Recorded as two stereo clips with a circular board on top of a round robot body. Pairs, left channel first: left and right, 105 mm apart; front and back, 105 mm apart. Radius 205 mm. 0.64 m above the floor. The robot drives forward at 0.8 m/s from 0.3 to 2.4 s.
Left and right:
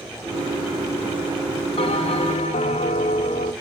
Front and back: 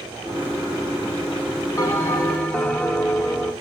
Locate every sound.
1.8 s a bell: 65° left, 1.5 m; by 3.5 s 85° left, 1.4 m